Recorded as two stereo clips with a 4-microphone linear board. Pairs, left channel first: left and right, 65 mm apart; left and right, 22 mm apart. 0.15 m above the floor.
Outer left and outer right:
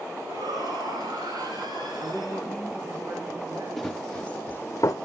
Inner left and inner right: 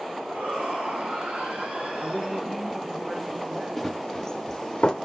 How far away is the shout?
About 9 m.